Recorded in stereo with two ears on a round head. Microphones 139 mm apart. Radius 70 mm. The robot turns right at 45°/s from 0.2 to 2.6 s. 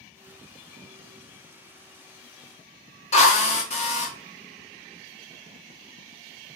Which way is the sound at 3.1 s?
45° left (ahead or behind).